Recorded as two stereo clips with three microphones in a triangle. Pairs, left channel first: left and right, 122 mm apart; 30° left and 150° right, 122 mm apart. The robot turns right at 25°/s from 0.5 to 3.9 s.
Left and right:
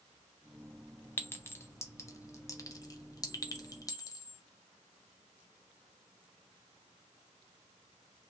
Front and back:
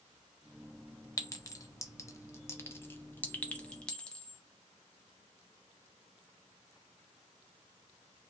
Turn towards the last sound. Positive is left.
turn(degrees=105)